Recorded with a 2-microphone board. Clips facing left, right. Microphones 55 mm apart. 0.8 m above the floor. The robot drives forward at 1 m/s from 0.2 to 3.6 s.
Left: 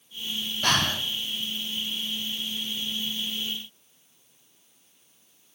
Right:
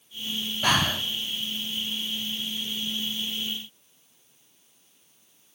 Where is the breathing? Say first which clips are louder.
Right 1 dB; 10° right (ahead or behind), 0.5 m; by 1.1 s 5° right (ahead or behind), 1.0 m.